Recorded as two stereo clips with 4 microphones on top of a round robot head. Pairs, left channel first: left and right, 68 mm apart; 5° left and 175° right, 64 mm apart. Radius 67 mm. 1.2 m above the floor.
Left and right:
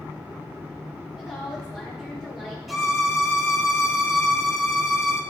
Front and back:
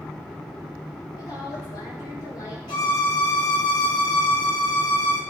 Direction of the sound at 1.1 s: 10° right.